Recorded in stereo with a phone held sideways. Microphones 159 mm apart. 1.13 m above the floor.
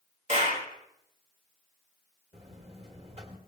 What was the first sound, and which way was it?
A clap, 45° right (ahead or behind).